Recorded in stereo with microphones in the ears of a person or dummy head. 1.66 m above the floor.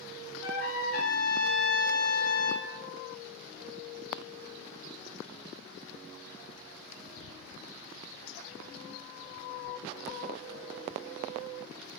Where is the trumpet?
50° left (ahead or behind), 1.2 m.